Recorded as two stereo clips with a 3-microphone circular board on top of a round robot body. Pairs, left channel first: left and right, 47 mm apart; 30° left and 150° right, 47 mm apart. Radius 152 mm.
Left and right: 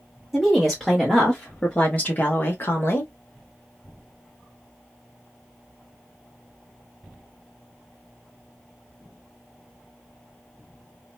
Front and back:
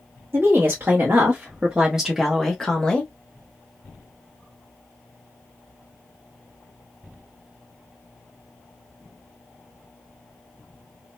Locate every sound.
0.3 s a woman speaking: 175° left, 1.5 m; by 3.1 s 90° left, 1.2 m